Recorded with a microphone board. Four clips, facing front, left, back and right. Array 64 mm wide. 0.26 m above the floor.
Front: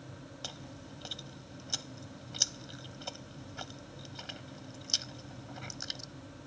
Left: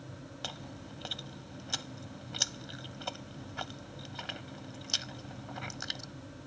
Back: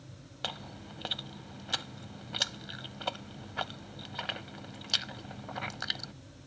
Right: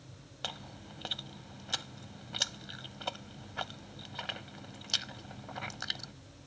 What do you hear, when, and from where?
0.4 s chewing: 170° right